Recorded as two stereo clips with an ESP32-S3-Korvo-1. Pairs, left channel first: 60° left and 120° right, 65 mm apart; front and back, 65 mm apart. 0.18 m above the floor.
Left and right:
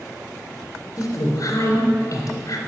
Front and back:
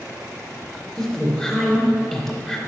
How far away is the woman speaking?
About 2.5 m.